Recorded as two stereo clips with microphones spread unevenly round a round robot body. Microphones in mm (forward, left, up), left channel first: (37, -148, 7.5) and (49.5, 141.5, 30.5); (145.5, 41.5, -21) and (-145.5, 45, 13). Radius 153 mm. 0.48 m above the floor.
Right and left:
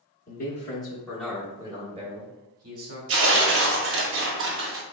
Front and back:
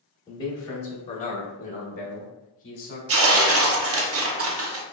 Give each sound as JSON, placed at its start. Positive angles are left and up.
{"t": 0.3, "sound": "a man speaking", "azimuth_deg": -65, "distance_m": 1.0}
{"t": 3.1, "sound": "tearing paper", "azimuth_deg": 135, "distance_m": 0.6}